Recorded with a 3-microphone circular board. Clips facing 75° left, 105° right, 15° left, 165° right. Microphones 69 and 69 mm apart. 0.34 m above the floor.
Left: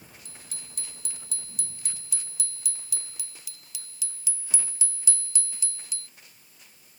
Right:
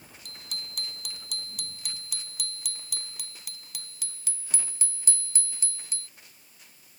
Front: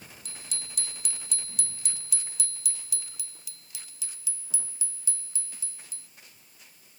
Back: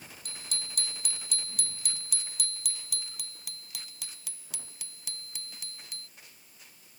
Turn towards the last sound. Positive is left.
turn(degrees=-150)